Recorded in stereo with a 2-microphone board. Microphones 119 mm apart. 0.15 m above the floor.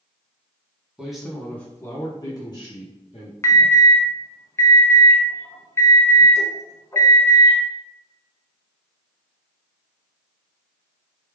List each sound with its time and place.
1.0 s a man speaking: 5° right (ahead or behind), 1.1 m; by 3.3 s 50° left (ahead or behind), 1.6 m
3.4 s an alarm: 25° left (ahead or behind), 0.9 m